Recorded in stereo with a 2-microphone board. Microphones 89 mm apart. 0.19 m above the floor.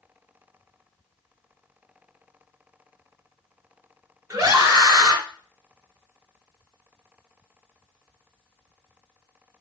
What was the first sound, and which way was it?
A scream, 40° right (ahead or behind).